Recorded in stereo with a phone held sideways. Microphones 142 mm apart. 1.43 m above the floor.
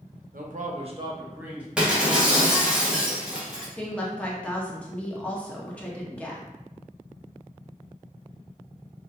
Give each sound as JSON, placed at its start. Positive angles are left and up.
{"t": 0.3, "sound": "a man speaking", "side_deg": -75, "distance_m": 0.5}
{"t": 1.8, "sound": "breaking glass", "side_deg": -5, "distance_m": 0.7}
{"t": 3.8, "sound": "a woman speaking", "side_deg": 10, "distance_m": 0.6}